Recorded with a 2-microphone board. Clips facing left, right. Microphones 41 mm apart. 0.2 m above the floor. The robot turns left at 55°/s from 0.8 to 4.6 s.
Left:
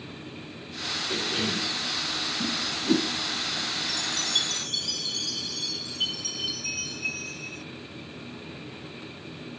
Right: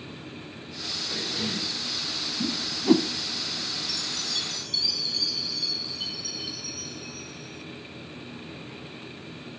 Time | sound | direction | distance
1.1 | a cough | 105° left | 7 m
2.4 | a whoosh | 25° right (ahead or behind) | 0.7 m
3.9 | a chime | 125° left | 0.6 m